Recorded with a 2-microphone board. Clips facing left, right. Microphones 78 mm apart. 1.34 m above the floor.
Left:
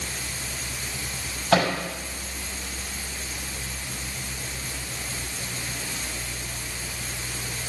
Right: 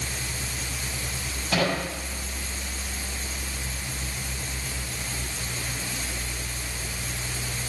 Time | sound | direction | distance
1.5 | a microwave | 65° left (ahead or behind) | 5.5 m